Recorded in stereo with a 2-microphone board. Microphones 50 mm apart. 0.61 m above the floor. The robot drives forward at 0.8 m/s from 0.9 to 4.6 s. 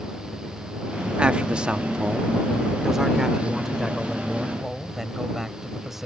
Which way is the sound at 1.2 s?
20° right (ahead or behind).